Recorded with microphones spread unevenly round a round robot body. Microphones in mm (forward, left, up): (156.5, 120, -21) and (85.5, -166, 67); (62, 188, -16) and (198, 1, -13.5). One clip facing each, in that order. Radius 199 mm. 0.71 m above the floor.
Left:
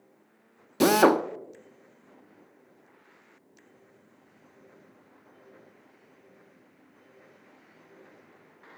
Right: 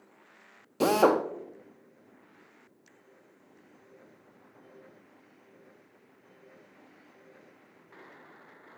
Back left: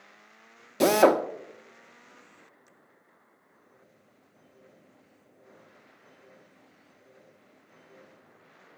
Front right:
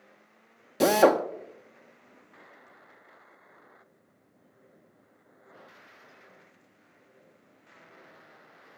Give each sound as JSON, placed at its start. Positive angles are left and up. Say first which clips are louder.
{"t": 0.8, "sound": "a drill", "louder": "left 3 dB, back left 1 dB", "azimuth_deg": 35, "distance_m": 0.7}